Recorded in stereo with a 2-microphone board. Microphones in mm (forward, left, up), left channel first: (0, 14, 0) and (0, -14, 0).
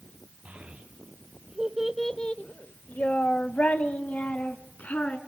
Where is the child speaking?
45° right (ahead or behind), 2.0 m; by 5.2 s 70° left (ahead or behind), 3.5 m.